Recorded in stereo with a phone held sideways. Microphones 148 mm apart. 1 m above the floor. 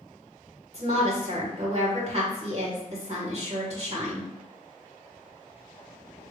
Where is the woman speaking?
45° right (ahead or behind), 1.8 m.